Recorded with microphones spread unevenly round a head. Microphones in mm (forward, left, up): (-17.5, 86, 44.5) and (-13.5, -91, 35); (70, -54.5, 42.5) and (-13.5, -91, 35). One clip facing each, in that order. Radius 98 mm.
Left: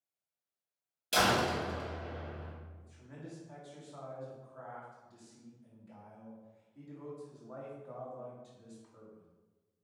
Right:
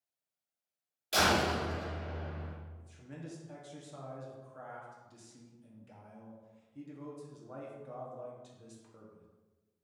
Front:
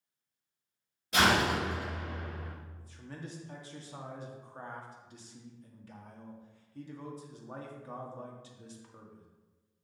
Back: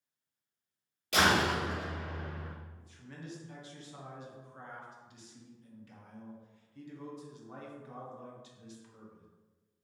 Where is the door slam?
155° left, 3 m.